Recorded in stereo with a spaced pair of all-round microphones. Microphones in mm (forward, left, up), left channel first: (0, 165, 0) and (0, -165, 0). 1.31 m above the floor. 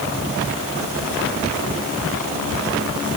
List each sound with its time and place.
Only background noise.